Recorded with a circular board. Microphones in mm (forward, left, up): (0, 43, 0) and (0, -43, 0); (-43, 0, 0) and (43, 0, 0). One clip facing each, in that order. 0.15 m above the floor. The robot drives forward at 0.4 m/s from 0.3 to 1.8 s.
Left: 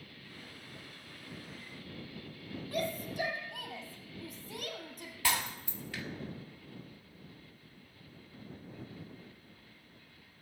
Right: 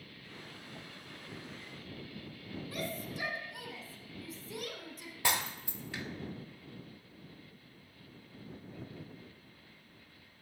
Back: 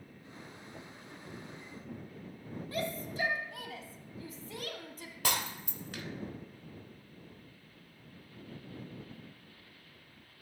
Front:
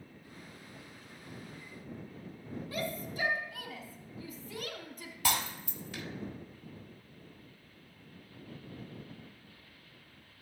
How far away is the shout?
About 3 m.